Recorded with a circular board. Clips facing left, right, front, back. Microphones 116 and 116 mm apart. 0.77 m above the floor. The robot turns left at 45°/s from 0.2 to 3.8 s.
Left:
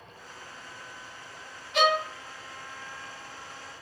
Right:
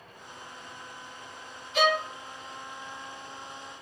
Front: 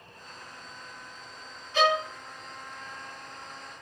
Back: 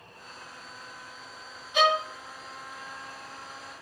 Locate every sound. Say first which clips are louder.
1.7 s a violin: left 1 dB, even; 105° left, 1.2 m; by 2.1 s 95° left, 1.2 m